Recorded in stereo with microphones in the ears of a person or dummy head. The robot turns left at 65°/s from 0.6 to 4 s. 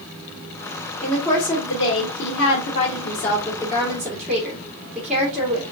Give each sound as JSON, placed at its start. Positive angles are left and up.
{"t": 1.0, "sound": "a woman speaking", "azimuth_deg": -175, "distance_m": 1.5}